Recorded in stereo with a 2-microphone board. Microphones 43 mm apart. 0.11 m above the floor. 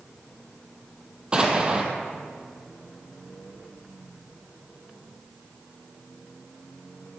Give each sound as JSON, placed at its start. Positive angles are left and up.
{"t": 1.3, "sound": "an explosion", "side_deg": -25, "distance_m": 1.7}